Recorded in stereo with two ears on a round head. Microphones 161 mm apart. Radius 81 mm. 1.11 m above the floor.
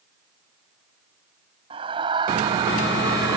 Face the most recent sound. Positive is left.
turn(degrees=-15)  # may be behind; listen again after turning